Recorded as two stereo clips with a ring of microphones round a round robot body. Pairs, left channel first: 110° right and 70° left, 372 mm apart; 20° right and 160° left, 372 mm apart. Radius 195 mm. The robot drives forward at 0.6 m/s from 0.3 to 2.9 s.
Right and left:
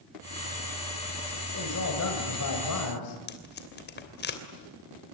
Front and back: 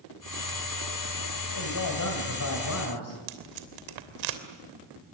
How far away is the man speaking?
About 4 m.